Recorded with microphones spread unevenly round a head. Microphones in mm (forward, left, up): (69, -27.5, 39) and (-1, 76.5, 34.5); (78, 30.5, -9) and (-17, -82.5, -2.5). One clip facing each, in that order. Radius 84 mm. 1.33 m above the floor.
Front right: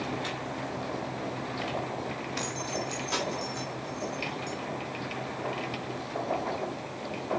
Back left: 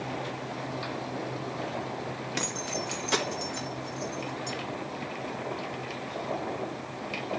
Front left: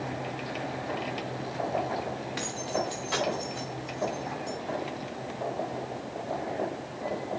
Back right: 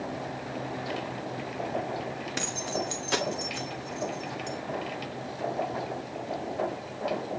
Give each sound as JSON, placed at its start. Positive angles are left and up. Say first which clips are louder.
{"t": 2.4, "sound": "keys jangling", "louder": "even, front left 1 dB", "azimuth_deg": 180, "distance_m": 1.5}